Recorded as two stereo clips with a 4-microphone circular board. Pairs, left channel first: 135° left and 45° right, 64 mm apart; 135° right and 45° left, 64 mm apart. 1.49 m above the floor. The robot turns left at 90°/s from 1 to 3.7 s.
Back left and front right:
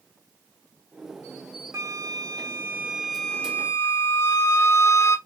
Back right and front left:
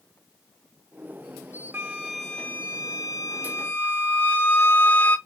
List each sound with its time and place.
1.7 s a flute: 5° right, 1.2 m; by 5.2 s straight behind, 1.2 m